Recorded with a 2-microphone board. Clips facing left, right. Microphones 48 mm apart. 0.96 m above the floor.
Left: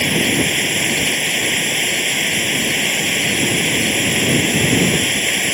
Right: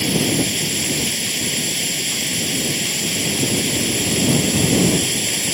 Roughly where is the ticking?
No ticking in this recording.